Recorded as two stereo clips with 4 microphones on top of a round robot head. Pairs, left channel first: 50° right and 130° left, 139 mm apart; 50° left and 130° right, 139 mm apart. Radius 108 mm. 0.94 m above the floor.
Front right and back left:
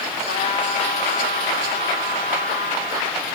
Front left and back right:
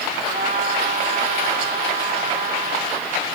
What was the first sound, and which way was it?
A trumpet, 100° right.